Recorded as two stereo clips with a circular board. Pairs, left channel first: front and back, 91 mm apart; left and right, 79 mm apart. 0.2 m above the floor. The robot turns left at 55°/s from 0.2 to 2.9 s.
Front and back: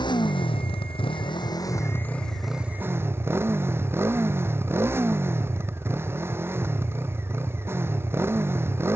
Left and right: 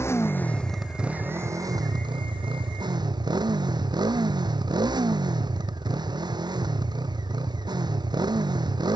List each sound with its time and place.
0.0 s a motorcycle: 30° left; by 9.0 s 115° right